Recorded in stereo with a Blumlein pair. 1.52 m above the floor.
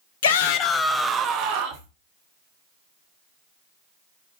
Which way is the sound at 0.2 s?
60° left.